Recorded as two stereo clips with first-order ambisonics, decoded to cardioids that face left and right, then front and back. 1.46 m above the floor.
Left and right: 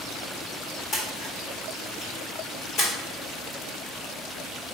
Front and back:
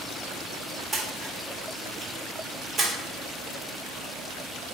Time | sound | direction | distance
0.9 | a splash | 125° left | 1.3 m